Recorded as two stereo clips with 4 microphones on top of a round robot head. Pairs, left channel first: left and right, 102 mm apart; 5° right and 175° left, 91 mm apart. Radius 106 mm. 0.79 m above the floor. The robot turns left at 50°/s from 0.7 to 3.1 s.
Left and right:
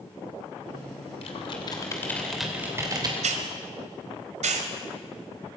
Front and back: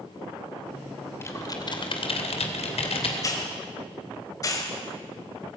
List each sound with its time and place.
1.2 s typing on a keyboard: 60° left, 2.5 m; by 3.1 s 35° right, 2.5 m
3.2 s a hiss: 70° right, 1.8 m